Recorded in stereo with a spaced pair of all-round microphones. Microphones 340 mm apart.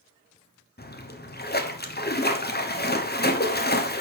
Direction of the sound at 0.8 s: 30° left (ahead or behind).